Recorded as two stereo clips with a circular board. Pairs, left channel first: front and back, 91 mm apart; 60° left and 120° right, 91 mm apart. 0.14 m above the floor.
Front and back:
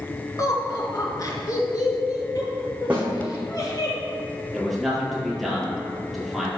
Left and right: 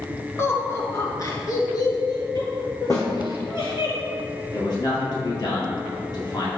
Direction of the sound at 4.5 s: 95° left.